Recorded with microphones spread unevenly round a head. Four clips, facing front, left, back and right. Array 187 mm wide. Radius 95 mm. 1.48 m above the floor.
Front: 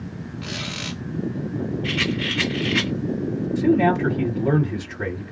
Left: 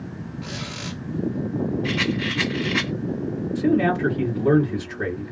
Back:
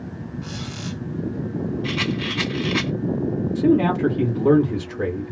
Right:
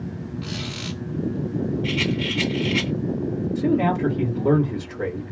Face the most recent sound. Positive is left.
turn(degrees=180)